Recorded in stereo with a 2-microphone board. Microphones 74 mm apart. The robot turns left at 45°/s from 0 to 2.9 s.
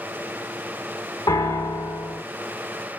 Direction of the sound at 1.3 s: 60° left.